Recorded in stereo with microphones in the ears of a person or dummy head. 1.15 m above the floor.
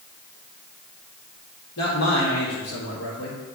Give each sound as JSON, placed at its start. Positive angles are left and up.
{"t": 1.8, "sound": "a man speaking", "side_deg": 60, "distance_m": 2.0}